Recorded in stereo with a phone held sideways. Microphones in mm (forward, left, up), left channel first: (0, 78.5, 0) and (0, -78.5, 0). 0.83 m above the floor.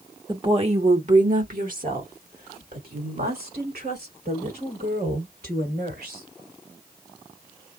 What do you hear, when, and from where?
0.3 s a woman speaking: 30° right (ahead or behind), 1.1 m; by 6.2 s 85° right, 5 m